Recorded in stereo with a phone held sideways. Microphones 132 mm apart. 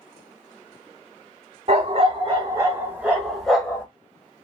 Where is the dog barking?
45° right (ahead or behind), 1.1 m; by 3.9 s 10° left (ahead or behind), 1.2 m.